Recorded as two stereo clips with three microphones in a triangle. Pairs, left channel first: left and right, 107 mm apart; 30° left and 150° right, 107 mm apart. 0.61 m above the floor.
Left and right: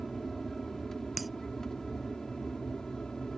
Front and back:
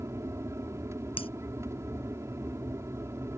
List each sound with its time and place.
0.0 s an aircraft: 175° left; by 3.4 s 170° left
1.2 s breaking glass: straight ahead